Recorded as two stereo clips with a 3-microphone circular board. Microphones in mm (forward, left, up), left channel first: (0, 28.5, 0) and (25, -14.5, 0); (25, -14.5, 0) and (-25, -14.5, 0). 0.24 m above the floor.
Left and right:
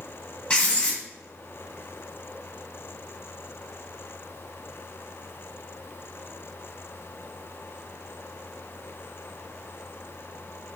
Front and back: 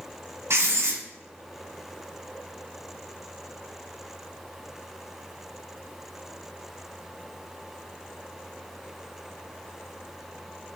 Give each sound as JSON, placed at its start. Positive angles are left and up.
{"t": 0.5, "sound": "writing", "azimuth_deg": -175, "distance_m": 1.8}